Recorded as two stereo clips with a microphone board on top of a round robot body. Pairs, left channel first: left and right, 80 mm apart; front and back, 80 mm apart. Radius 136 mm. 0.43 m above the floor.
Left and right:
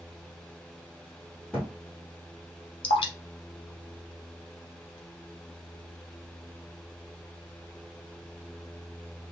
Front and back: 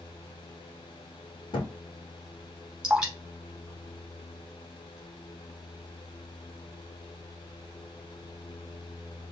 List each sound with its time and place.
1.5 s a thud: 10° left, 1.2 m
2.8 s dripping: 95° left, 0.5 m